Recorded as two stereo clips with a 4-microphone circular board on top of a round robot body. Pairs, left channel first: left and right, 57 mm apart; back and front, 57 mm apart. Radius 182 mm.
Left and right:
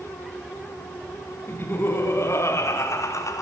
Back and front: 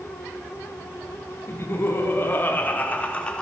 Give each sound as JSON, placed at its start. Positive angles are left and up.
{"t": 1.5, "sound": "laughter", "azimuth_deg": 140, "distance_m": 3.5}